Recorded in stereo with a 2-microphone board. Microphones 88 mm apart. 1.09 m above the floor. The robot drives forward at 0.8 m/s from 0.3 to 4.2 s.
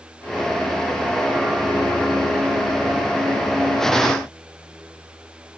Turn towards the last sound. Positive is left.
No sound to turn to.